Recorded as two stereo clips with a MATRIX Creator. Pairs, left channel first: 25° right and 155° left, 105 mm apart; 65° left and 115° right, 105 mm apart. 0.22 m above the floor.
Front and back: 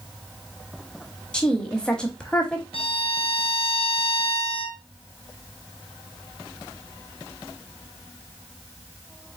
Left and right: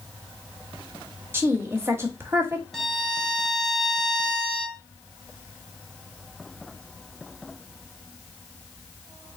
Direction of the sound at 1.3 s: 95° right.